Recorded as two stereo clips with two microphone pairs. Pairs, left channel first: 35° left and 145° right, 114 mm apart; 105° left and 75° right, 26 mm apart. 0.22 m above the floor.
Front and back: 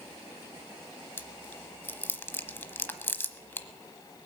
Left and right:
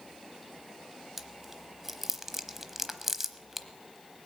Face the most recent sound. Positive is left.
turn(degrees=-10)